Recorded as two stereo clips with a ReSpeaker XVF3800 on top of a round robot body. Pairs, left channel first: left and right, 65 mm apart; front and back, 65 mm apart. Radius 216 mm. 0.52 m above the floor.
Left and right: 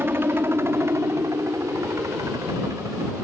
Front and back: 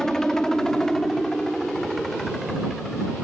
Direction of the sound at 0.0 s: 75° right.